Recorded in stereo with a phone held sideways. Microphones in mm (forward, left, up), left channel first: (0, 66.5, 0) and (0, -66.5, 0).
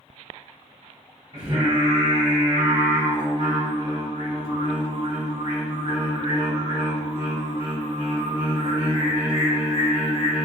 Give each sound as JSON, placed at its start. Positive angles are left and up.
{"t": 1.3, "sound": "singing", "side_deg": -45, "distance_m": 1.1}